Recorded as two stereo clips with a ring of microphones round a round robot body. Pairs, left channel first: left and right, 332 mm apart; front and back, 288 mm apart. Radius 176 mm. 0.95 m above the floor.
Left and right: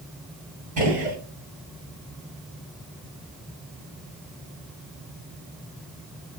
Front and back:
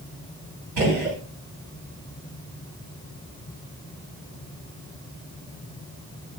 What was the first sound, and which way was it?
A gunshot, 155° right.